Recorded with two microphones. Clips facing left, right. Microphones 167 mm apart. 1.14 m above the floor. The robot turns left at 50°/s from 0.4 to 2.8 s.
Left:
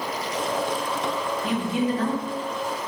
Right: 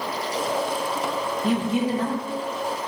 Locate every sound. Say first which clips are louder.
1.4 s a woman speaking: right 2 dB; 140° right, 0.6 m; by 2.8 s 155° left, 0.6 m